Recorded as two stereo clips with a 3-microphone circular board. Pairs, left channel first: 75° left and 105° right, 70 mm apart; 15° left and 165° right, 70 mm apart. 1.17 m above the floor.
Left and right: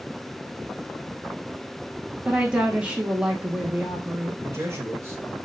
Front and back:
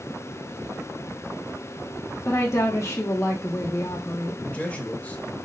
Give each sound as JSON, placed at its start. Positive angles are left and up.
{"t": 2.2, "sound": "a woman speaking", "azimuth_deg": -30, "distance_m": 0.7}
{"t": 4.4, "sound": "a man speaking", "azimuth_deg": -55, "distance_m": 1.3}